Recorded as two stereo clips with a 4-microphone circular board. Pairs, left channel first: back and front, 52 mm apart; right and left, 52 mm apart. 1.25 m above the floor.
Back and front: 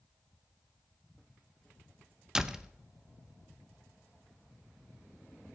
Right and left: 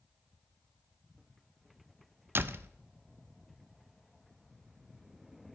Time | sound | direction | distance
2.4 | a door slam | 75° left | 0.5 m